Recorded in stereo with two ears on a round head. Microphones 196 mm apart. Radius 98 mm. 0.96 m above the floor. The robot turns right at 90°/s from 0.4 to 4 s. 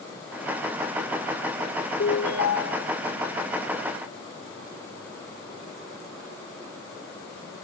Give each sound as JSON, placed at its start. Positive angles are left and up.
{"t": 2.0, "sound": "a ringtone", "azimuth_deg": 50}